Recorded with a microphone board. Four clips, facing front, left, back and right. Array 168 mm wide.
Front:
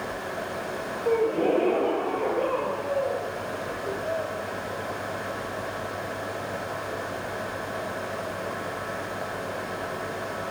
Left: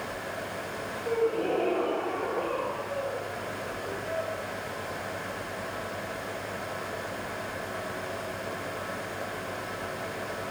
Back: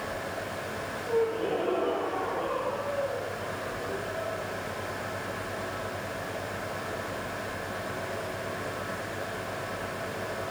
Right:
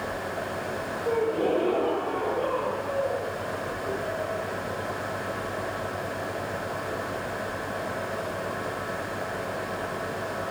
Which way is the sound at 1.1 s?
15° right.